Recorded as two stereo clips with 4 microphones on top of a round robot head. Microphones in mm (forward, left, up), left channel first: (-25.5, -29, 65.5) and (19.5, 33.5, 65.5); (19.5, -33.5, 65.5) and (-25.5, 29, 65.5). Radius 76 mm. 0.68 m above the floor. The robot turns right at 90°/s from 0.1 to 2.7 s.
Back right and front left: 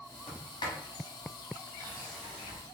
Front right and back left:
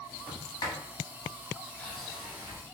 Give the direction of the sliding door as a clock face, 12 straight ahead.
4 o'clock.